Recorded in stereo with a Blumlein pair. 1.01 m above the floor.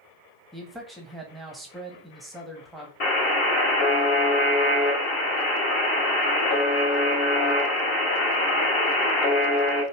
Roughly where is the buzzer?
Ahead left.